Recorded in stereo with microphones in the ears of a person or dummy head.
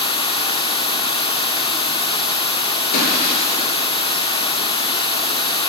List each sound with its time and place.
0.0 s running water: 20° left (ahead or behind), 0.9 m
2.9 s breaking glass: 65° left (ahead or behind), 4 m